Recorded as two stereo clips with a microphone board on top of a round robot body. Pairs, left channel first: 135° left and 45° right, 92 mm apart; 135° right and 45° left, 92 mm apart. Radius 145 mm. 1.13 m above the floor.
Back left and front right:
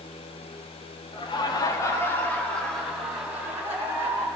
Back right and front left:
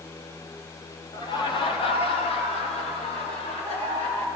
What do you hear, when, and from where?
1.1 s laughter: 175° left, 2.0 m; by 4.2 s 110° right, 3 m